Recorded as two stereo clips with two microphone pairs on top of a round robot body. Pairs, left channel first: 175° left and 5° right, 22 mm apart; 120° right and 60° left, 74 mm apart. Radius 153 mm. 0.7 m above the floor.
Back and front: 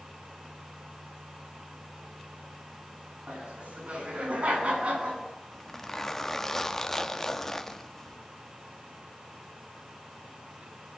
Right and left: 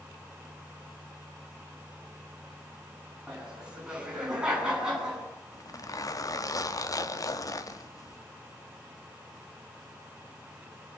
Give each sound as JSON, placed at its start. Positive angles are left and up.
{"t": 3.3, "sound": "laughter", "azimuth_deg": -20, "distance_m": 9.5}
{"t": 5.5, "sound": "a zipper", "azimuth_deg": -115, "distance_m": 2.0}